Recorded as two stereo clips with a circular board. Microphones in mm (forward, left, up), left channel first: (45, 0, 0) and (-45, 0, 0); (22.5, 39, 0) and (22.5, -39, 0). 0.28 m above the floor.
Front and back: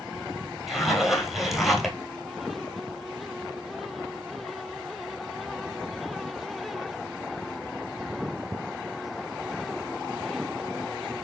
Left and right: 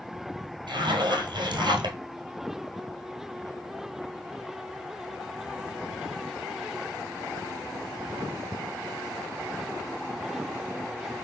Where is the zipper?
90° right, 1.5 m.